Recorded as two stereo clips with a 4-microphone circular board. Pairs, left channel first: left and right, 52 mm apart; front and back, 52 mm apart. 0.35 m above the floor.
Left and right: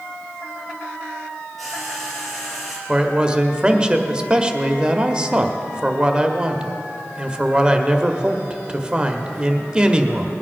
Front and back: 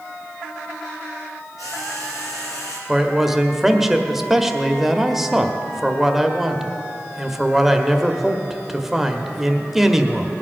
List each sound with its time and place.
1.6 s frying: straight ahead, 3.5 m
2.9 s a man speaking: 110° right, 0.8 m